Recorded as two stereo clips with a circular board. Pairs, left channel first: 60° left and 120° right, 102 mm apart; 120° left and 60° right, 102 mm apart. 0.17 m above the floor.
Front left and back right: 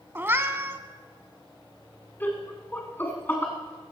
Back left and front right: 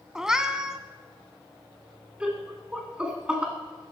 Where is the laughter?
10° left, 1.3 m.